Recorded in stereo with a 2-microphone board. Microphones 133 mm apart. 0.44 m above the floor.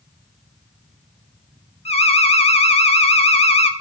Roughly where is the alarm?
Left.